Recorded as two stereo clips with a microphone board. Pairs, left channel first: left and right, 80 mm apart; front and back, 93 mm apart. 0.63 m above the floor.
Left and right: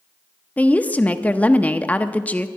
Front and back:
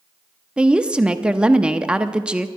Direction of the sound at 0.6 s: 120° left.